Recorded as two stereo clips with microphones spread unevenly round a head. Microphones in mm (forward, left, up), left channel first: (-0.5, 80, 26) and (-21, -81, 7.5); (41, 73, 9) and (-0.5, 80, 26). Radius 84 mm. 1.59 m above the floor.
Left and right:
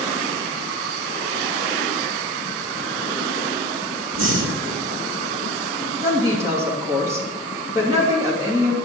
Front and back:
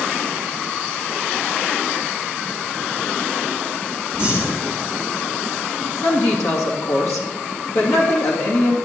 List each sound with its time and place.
4.1 s breathing: 95° right, 1.9 m
6.0 s a woman speaking: 25° right, 3 m